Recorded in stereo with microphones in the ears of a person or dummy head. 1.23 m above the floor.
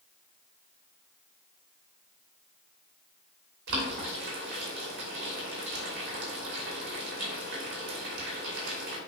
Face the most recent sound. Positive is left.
turn(degrees=-60)  # may be behind; listen again after turning